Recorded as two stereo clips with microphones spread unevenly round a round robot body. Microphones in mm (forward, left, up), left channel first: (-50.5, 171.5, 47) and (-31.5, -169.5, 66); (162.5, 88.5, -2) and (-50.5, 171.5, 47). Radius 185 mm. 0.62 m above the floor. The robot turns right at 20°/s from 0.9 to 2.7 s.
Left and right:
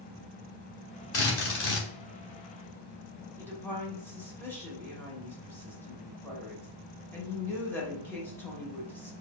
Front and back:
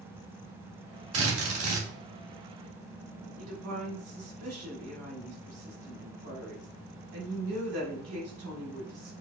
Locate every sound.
1.1 s a drill: 140° left, 1.4 m; by 1.9 s 155° left, 1.4 m
3.4 s a woman speaking: 175° left, 1.6 m